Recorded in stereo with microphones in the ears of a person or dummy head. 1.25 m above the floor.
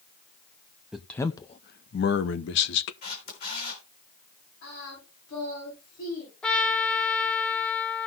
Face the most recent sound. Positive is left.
turn(degrees=5)  # may be behind; listen again after turning